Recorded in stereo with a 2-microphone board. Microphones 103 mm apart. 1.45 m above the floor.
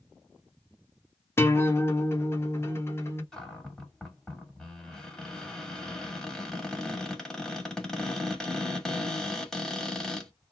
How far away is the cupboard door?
About 1.1 m.